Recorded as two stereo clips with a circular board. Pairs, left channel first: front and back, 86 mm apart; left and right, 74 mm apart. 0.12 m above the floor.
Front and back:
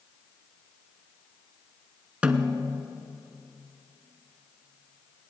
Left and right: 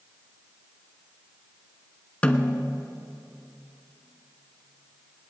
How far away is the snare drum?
About 0.7 m.